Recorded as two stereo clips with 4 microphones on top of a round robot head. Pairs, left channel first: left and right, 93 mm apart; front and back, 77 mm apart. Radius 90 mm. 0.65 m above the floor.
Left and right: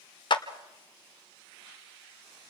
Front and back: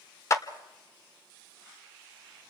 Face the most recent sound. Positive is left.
turn(degrees=55)